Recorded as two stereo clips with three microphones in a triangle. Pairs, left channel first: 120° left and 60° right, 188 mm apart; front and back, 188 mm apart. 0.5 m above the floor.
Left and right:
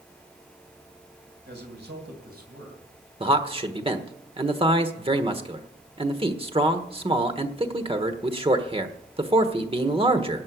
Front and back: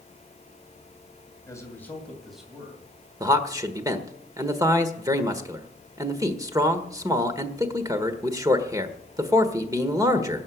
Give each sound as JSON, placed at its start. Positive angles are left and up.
{"t": 1.5, "sound": "a man speaking", "azimuth_deg": -70, "distance_m": 2.5}
{"t": 3.2, "sound": "a man speaking", "azimuth_deg": -115, "distance_m": 1.3}